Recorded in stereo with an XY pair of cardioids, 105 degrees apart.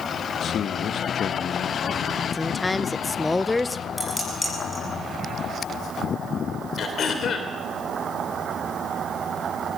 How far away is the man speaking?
About 1.4 m.